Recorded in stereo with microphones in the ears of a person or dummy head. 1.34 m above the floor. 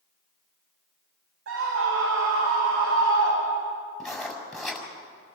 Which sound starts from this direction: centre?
Writing, at 4.0 s.